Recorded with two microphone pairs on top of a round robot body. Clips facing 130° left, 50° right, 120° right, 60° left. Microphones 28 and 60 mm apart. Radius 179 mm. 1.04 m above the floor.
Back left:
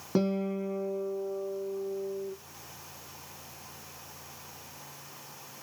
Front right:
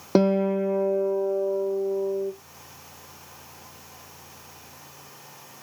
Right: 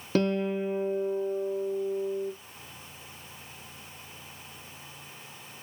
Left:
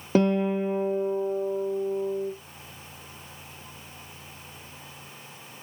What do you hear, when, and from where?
0.1 s a guitar: 20° right, 0.6 m